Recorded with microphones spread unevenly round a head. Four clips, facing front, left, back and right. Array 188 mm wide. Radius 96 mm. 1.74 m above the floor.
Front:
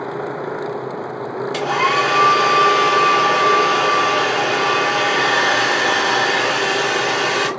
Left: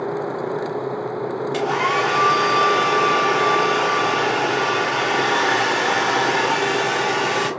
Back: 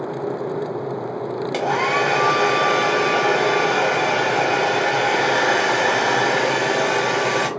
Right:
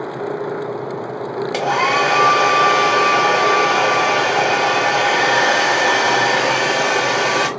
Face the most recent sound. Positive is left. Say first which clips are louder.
# right 4 dB, front 2 dB
turn(degrees=-125)